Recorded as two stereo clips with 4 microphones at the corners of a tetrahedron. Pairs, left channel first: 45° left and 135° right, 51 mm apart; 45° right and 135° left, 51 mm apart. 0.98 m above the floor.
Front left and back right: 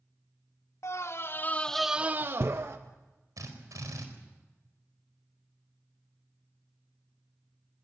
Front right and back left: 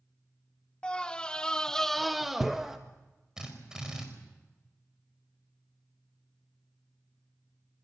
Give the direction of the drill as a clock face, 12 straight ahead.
5 o'clock.